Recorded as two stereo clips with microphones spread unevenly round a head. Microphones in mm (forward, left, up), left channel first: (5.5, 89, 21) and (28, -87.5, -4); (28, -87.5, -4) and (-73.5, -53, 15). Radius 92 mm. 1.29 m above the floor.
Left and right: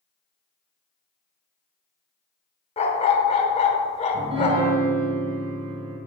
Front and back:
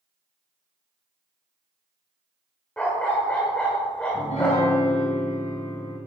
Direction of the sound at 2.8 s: 70° left.